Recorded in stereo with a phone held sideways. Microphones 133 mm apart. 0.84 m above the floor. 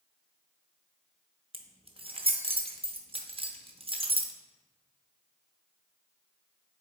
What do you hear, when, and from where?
1.5 s keys jangling: 45° right (ahead or behind), 0.6 m